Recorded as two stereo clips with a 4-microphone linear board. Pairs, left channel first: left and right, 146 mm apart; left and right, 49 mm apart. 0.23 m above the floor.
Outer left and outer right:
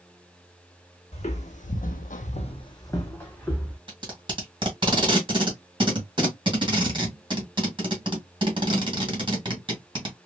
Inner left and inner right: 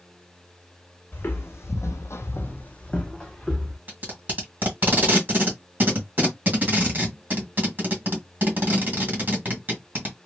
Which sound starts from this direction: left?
Footsteps, at 1.1 s.